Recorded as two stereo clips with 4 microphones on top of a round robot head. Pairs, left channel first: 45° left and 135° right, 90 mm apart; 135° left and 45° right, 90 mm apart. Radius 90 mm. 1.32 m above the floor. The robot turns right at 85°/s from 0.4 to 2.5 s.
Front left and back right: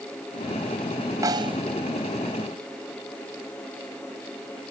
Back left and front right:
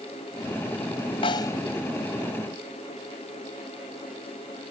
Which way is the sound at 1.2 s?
170° left.